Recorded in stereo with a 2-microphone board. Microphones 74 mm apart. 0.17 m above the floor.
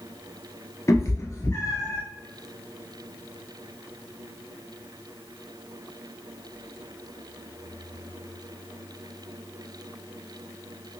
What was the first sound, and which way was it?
A cat meowing, 40° left (ahead or behind).